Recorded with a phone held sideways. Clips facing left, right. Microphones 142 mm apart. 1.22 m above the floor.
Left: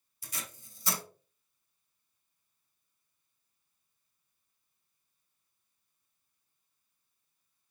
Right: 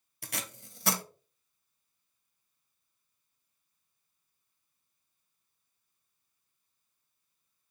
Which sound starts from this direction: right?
Tape being pulled, at 0.2 s.